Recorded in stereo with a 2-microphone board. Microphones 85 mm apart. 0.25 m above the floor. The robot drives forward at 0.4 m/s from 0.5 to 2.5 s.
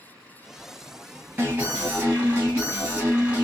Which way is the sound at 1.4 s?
20° right (ahead or behind).